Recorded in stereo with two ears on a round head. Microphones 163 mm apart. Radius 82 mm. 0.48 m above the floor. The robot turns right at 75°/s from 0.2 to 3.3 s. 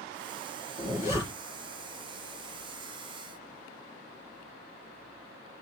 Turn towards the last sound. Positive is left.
turn(degrees=-55)